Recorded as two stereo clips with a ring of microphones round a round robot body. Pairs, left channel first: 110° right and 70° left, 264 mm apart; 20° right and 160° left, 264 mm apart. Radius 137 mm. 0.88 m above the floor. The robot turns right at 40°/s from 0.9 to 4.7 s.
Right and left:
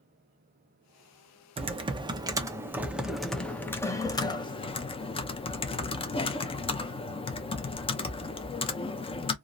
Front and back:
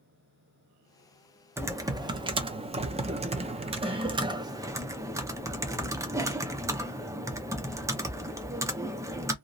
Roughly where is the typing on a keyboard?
Left.